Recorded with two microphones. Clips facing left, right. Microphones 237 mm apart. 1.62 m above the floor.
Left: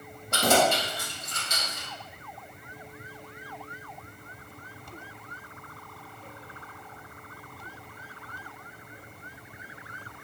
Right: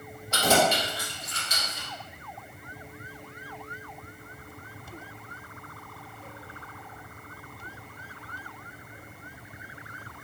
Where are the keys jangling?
60° left (ahead or behind), 1.5 m; by 1.9 s 40° left (ahead or behind), 1.9 m.